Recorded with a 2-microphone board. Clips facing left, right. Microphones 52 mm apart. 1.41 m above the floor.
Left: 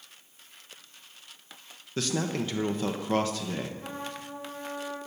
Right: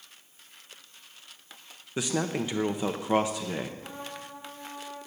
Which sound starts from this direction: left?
A trumpet, at 3.8 s.